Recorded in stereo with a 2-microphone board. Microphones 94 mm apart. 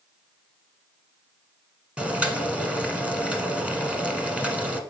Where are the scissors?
I don't hear scissors.